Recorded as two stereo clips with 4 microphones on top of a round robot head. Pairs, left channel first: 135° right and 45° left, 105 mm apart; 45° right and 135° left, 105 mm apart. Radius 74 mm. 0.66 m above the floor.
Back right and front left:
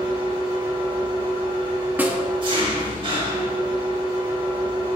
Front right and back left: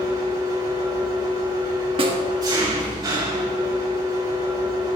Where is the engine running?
85° left, 4 m.